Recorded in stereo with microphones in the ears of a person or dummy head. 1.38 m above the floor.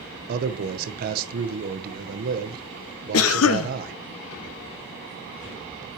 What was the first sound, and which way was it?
A man speaking, 55° right (ahead or behind).